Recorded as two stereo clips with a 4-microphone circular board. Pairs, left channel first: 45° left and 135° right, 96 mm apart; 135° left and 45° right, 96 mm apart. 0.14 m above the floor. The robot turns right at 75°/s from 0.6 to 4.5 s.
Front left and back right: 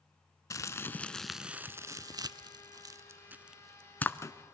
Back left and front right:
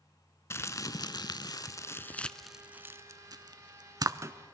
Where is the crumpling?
85° left, 0.5 m; by 4.3 s 5° left, 0.5 m.